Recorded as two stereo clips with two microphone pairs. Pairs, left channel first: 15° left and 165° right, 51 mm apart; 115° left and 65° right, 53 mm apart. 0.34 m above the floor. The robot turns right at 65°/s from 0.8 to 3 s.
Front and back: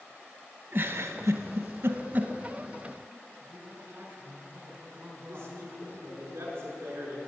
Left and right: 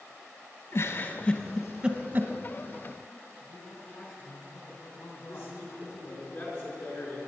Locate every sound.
0.7 s a giggle: 155° left, 0.9 m; by 2.3 s 105° right, 0.9 m
3.4 s a man speaking: 150° left, 3.5 m
5.3 s a man speaking: 160° left, 5.5 m